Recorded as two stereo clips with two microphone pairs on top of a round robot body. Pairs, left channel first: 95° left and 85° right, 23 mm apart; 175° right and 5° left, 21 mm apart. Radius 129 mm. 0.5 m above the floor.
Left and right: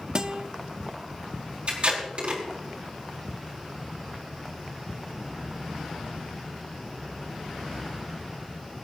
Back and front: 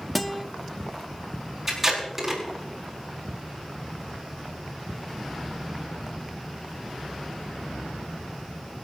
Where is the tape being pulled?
70° right, 5 m.